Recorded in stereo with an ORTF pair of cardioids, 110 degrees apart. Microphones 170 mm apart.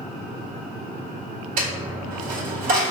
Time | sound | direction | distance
1.6 | a dropped coin | 60° right | 1.8 m